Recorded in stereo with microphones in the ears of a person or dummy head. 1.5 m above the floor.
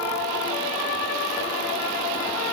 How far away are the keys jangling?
I don't hear keys jangling.